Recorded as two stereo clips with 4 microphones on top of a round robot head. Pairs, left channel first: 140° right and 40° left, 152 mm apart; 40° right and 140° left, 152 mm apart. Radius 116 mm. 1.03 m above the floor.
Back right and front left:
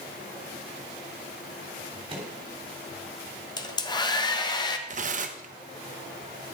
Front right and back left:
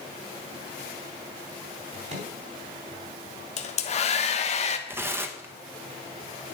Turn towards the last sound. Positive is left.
turn(degrees=70)